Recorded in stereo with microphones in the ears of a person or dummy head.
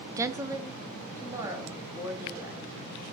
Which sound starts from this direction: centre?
A woman speaking, at 0.2 s.